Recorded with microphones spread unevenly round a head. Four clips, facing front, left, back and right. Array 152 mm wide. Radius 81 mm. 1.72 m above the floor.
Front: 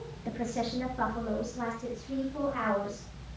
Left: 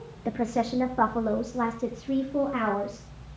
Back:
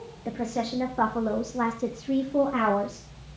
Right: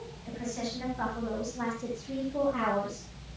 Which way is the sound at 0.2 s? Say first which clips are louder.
Left 10 dB, back 4 dB; 105° left.